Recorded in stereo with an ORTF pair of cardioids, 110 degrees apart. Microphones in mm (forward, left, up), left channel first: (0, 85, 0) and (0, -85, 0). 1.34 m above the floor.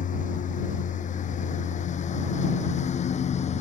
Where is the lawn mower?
50° left; by 3.6 s 40° left.